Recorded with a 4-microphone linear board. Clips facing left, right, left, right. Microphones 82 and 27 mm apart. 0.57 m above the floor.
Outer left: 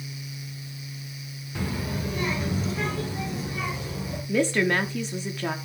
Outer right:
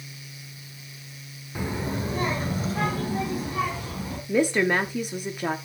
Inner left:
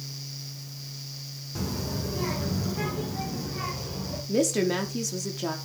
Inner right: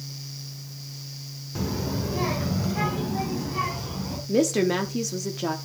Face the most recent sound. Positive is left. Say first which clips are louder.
# outer right 1 dB, inner right 3 dB
turn(degrees=-10)  # may be behind; listen again after turning